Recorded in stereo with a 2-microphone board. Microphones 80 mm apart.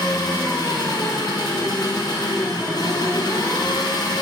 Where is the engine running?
65° left (ahead or behind), 1.2 m.